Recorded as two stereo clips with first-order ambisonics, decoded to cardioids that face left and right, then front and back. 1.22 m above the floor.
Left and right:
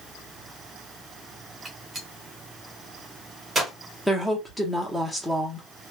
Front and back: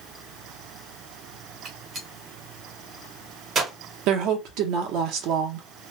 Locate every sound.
1.6 s a gunshot: 155° right, 1.0 m
4.1 s a woman speaking: straight behind, 0.8 m